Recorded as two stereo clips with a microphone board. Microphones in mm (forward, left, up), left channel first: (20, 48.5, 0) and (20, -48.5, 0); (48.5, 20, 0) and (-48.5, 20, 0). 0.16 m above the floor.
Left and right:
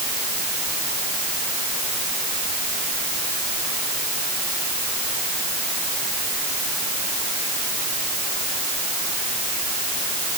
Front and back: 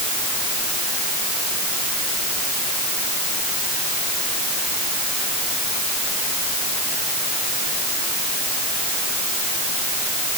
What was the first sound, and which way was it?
Only background noise.